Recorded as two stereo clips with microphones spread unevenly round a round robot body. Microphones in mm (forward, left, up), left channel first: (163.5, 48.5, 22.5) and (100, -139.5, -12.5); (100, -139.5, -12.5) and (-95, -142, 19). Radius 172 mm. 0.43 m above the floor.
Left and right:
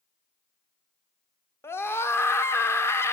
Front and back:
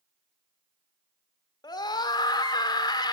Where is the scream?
15° right, 0.8 m.